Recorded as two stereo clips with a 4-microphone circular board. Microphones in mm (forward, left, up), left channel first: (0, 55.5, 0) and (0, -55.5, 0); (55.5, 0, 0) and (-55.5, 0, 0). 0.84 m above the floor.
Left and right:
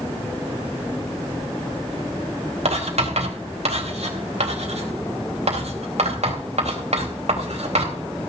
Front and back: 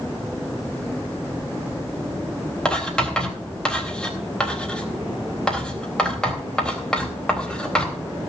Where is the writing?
80° right, 3.5 m.